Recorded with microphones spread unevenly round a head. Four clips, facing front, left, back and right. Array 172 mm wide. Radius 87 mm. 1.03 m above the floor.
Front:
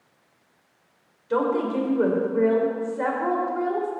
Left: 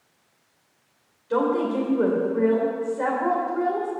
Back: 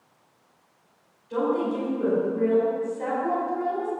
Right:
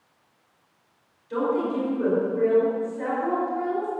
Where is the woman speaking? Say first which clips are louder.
Left 2 dB, front 2 dB; 35° left, 4 m.